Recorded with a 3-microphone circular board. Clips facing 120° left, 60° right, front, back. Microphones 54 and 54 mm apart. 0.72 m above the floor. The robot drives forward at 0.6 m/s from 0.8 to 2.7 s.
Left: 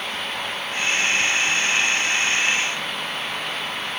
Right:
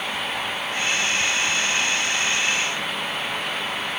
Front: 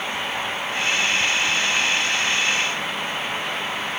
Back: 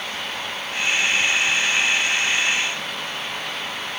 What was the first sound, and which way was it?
Only background noise.